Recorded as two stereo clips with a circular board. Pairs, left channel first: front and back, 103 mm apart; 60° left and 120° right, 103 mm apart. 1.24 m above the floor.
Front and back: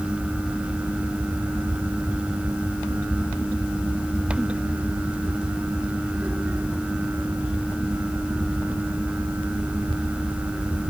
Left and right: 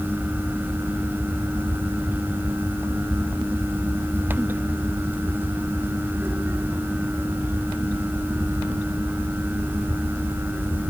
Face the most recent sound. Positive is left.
No sound to turn to.